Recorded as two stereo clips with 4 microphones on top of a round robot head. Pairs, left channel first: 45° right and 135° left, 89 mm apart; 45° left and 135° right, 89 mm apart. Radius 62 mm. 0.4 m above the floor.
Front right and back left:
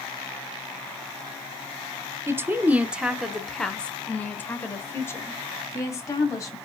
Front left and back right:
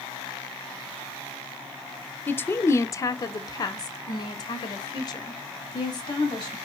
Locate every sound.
2.3 s a woman speaking: 100° left, 1.1 m; by 6.5 s 5° left, 2.5 m